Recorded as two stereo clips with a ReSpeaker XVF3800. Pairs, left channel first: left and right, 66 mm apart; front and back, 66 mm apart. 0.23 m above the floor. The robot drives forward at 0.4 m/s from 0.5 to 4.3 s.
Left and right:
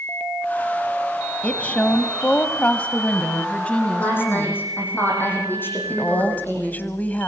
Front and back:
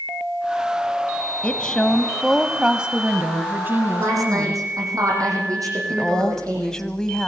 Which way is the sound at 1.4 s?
50° left.